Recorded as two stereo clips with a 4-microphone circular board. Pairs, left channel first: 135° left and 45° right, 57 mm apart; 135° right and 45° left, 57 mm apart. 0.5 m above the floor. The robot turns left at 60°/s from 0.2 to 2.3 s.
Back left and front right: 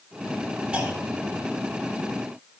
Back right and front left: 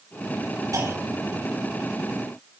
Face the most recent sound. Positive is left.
turn(degrees=-65)